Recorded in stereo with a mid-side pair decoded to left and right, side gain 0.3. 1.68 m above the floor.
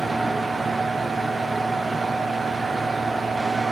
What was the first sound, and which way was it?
A fan, 40° right.